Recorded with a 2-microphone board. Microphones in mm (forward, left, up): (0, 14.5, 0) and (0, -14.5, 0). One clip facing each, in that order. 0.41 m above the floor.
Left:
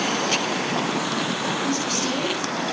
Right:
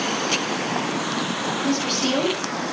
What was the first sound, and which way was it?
A woman speaking, 50° right (ahead or behind).